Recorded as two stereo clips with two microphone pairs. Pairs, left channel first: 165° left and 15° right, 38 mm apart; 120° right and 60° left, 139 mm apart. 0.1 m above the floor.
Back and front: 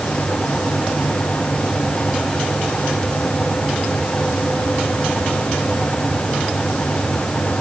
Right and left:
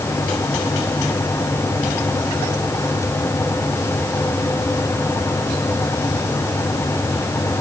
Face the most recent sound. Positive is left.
No sound to turn to.